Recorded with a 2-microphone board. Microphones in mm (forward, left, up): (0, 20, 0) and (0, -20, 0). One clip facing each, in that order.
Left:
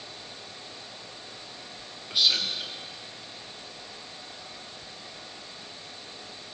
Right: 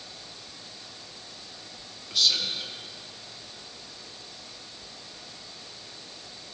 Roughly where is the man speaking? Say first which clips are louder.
Left 1 dB; centre.